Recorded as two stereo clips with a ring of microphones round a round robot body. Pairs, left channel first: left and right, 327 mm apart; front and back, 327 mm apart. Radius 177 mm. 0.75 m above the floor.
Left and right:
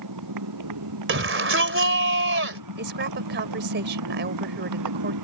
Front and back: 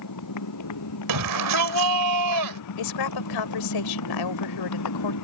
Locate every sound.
0.0 s a motorcycle: 45° right
1.1 s a shout: 145° right
2.8 s a woman speaking: 30° right